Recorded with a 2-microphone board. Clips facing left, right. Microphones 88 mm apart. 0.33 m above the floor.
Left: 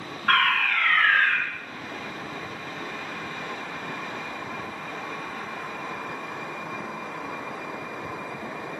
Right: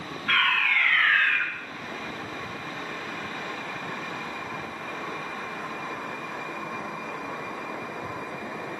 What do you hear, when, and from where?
0.3 s a fire alarm: 50° left (ahead or behind), 6 m